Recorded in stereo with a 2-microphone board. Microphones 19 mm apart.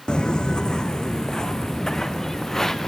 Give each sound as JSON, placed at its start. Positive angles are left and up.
{"t": 0.1, "sound": "footsteps", "side_deg": 55, "distance_m": 0.9}